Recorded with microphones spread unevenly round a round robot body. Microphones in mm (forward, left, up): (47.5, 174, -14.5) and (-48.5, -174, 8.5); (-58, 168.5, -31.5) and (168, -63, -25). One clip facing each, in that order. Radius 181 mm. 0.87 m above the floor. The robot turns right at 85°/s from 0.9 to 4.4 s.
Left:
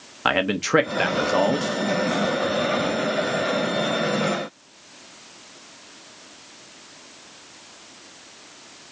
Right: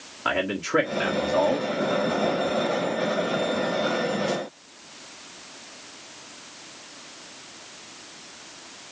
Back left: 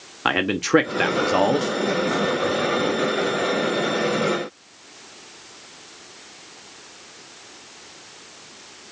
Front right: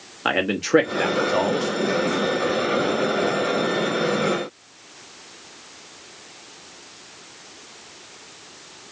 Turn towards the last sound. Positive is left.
turn(degrees=-5)